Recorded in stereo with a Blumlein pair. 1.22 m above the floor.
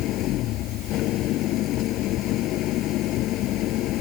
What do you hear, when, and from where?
0.0 s an engine running: 35° left